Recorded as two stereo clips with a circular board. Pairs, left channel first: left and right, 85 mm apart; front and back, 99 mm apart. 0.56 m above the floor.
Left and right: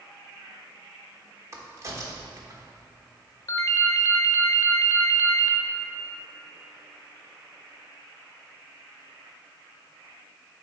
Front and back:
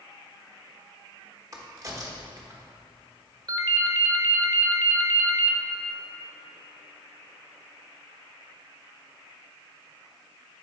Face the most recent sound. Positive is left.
turn(degrees=135)